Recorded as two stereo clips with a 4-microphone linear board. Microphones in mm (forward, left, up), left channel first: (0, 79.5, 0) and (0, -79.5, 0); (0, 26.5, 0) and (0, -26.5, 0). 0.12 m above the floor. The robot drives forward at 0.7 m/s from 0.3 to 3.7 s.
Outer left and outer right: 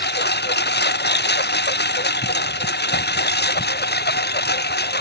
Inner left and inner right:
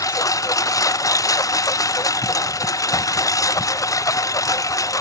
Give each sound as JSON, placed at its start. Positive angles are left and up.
{"t": 0.0, "sound": "a lawn mower", "side_deg": 85}